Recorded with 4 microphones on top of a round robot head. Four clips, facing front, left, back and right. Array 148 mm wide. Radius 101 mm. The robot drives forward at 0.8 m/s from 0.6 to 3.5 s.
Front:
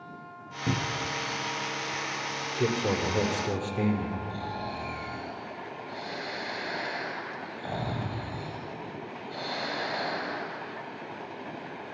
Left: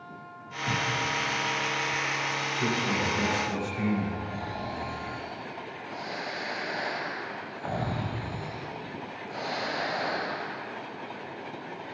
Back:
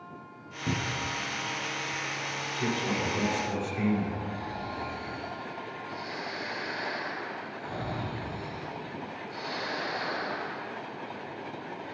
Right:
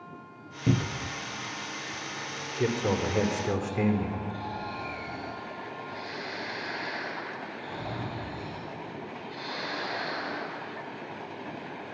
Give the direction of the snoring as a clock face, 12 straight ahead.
10 o'clock.